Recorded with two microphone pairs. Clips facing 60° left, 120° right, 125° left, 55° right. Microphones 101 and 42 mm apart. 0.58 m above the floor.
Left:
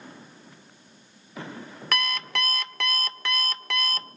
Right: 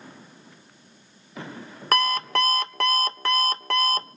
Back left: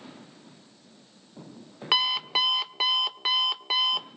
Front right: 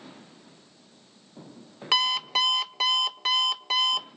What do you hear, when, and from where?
1.9 s an alarm clock: 160° right, 0.7 m